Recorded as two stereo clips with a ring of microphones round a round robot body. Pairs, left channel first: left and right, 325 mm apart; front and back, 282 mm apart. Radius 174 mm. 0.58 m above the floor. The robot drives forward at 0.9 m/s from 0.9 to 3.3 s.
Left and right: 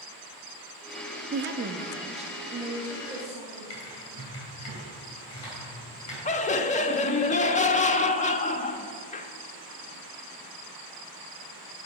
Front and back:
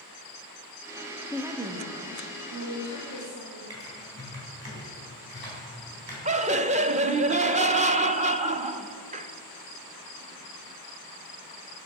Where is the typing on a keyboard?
130° left, 4 m.